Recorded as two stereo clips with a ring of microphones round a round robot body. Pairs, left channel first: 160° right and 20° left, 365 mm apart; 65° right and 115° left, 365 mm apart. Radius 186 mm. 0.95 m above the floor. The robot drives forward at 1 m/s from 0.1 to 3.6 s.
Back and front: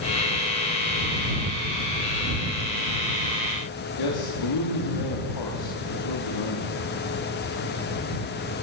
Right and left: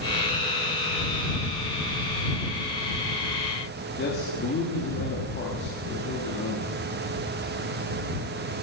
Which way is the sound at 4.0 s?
130° right.